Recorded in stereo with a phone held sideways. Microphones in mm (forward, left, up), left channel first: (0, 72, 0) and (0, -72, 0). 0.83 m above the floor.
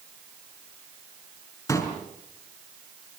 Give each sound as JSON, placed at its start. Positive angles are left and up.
{"t": 1.7, "sound": "a pop", "side_deg": 25, "distance_m": 5.5}